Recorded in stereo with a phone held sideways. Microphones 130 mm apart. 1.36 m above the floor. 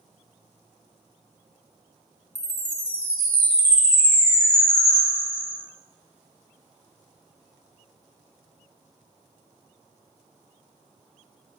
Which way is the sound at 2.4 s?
60° left (ahead or behind).